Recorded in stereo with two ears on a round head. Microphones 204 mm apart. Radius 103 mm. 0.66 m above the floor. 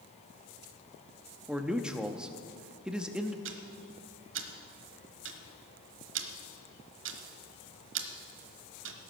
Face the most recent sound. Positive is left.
turn(degrees=-60)  # may be behind; listen again after turning